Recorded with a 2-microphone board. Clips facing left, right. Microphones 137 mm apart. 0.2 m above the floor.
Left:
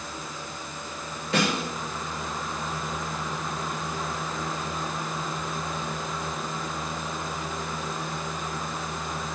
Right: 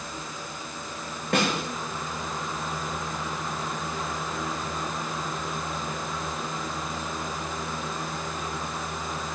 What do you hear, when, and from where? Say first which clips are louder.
1.3 s a snare drum: even; 65° right (ahead or behind), 8 m